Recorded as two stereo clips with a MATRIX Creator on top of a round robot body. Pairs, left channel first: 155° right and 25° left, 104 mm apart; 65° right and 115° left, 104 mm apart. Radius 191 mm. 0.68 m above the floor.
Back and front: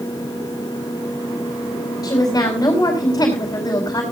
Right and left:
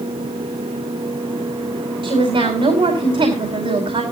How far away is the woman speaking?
About 5 m.